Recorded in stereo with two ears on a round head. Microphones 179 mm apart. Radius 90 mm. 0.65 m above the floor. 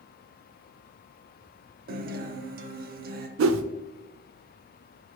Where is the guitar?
50° right (ahead or behind), 0.6 m.